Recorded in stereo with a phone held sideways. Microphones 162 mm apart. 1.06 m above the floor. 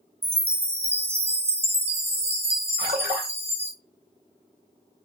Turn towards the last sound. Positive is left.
turn(degrees=-70)  # may be behind; listen again after turning